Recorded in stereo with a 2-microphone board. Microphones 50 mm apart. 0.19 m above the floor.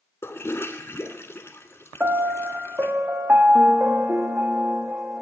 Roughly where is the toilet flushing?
Left.